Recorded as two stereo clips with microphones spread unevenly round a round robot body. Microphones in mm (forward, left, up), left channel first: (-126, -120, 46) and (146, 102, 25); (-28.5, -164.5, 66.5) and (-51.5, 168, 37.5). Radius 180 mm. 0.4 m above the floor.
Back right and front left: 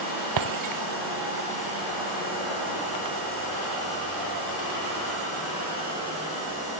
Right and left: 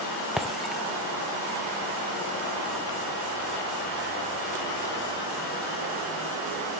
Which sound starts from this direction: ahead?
Breaking glass, at 0.4 s.